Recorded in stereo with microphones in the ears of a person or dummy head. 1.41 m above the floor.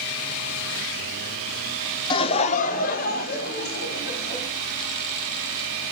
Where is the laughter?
30° left (ahead or behind), 0.9 m; by 4.4 s 60° left (ahead or behind), 4.5 m.